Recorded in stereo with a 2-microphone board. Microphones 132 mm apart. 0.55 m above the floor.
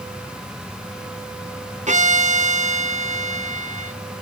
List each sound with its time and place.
1.9 s a violin: 65° right (ahead or behind), 0.7 m